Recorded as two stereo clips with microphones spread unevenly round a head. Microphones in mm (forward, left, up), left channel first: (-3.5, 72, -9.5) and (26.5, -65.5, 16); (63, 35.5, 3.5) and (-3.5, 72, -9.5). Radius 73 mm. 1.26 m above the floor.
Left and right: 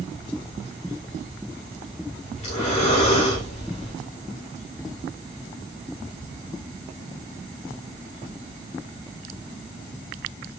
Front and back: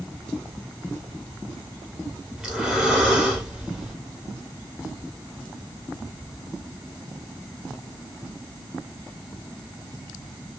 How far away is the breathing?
About 1.1 m.